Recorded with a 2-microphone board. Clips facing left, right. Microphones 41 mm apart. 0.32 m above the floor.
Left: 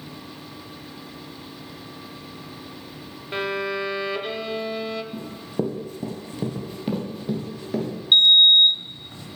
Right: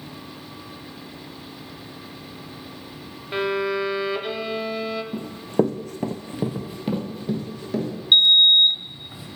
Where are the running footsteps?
55° right (ahead or behind), 1.4 m; by 7.9 s 10° left (ahead or behind), 3 m.